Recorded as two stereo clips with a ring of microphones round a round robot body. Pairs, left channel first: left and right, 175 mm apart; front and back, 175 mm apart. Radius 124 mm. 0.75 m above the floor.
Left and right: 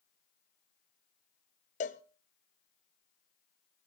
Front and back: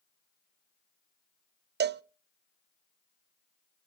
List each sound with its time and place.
1.8 s a cowbell: 150° left, 0.5 m